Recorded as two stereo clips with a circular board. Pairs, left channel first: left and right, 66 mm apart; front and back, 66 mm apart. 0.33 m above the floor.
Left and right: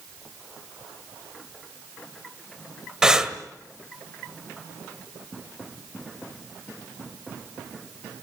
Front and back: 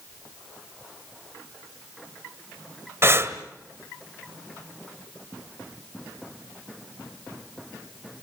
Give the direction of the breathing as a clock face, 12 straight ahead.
5 o'clock.